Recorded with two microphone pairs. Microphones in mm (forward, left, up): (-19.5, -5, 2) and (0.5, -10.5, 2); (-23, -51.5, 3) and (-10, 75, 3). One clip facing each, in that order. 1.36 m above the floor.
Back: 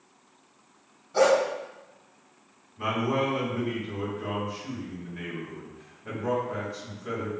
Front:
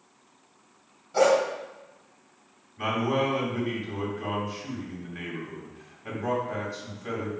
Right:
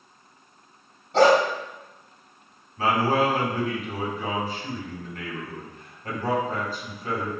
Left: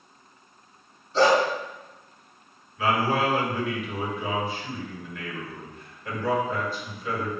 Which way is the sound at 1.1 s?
90° right.